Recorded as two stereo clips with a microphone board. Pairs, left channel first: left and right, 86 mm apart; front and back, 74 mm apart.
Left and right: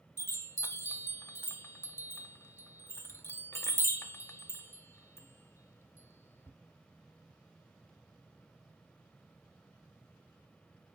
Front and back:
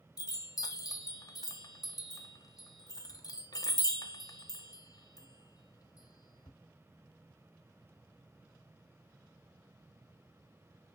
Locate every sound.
0.2 s a chime: 30° left, 0.7 m